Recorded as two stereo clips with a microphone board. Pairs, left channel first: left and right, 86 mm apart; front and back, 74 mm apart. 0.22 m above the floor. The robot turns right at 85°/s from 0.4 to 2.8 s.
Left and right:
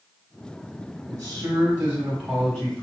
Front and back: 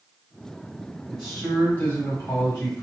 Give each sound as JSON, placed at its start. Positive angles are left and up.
{"t": 1.1, "sound": "a man speaking", "azimuth_deg": -100, "distance_m": 1.5}